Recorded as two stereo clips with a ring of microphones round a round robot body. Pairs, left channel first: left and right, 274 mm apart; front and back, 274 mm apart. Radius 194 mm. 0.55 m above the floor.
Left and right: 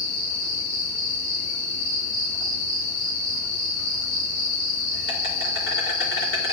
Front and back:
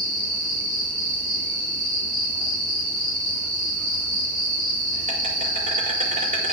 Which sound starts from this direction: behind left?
An insect, at 0.0 s.